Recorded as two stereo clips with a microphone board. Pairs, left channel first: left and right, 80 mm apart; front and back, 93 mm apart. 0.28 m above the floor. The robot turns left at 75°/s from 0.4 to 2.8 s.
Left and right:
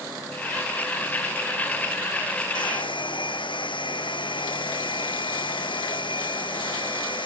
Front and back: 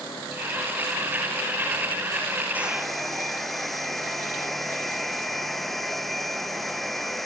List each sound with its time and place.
2.5 s a hair dryer: 110° left; by 7.3 s 90° left